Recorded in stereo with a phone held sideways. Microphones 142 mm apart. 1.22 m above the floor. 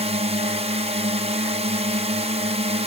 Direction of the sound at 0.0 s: 50° right (ahead or behind).